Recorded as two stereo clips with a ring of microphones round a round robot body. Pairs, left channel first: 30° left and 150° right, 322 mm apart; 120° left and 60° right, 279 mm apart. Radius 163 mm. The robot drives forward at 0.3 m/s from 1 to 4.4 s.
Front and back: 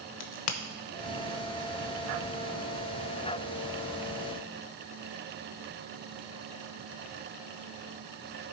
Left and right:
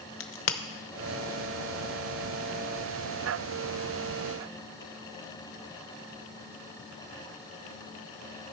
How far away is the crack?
About 0.8 m.